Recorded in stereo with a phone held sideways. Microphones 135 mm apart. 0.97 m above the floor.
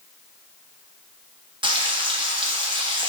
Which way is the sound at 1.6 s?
35° right (ahead or behind).